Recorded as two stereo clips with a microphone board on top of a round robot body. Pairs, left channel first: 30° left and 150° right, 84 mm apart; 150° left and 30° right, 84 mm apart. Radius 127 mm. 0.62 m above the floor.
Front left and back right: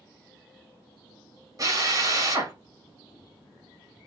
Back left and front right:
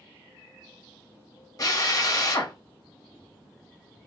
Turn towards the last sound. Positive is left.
turn(degrees=180)